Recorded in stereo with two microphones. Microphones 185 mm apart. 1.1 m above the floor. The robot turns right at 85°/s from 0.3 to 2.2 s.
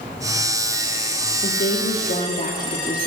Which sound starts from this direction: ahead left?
A woman speaking, at 1.4 s.